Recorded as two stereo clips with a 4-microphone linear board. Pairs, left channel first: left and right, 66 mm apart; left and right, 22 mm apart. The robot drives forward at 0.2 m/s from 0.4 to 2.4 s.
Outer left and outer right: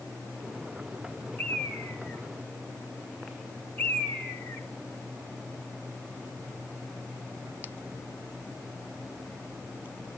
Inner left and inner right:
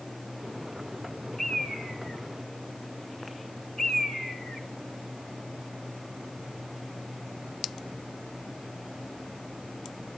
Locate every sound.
1.4 s a bird: 30° left (ahead or behind), 2 m; by 4.7 s 25° left (ahead or behind), 2 m